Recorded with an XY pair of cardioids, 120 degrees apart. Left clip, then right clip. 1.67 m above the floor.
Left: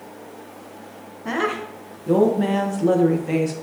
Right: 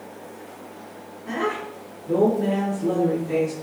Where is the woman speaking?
65° left, 1.7 m.